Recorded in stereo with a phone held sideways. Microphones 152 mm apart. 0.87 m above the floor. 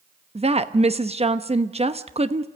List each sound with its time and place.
0.3 s a woman speaking: 40° right (ahead or behind), 0.9 m